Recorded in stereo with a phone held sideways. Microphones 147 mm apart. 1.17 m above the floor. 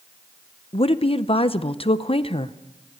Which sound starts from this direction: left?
A woman speaking, at 0.7 s.